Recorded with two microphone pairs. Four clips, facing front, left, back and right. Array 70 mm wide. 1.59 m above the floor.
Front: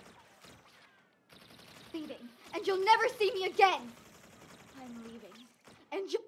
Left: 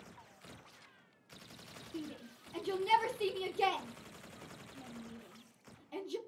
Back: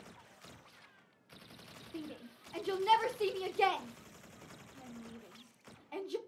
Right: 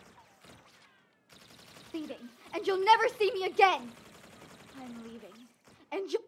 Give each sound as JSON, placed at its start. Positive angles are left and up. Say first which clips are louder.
{"t": 1.9, "sound": "a shout", "louder": "right 6 dB, front 4 dB", "azimuth_deg": -65, "distance_m": 0.5}